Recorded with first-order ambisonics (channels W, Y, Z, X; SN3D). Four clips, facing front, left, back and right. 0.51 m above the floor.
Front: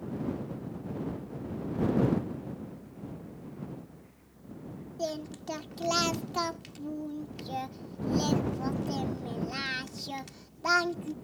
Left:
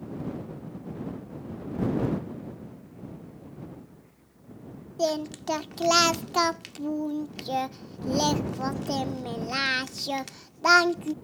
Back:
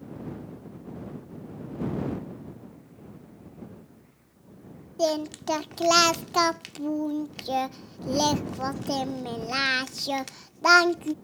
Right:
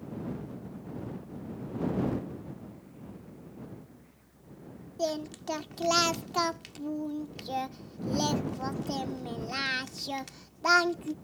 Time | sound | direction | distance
5.0 | singing | 150° left | ?